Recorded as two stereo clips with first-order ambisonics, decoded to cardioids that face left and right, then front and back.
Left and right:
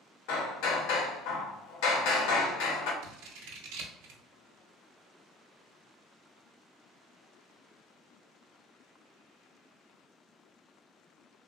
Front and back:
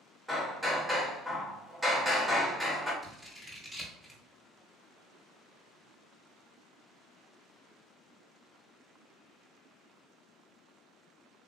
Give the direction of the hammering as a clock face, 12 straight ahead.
9 o'clock.